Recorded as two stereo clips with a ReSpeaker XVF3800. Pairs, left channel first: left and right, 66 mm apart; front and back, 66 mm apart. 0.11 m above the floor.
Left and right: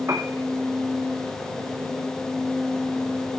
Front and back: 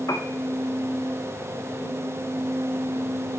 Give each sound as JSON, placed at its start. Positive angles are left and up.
{"t": 0.1, "sound": "a piano", "azimuth_deg": -40, "distance_m": 0.9}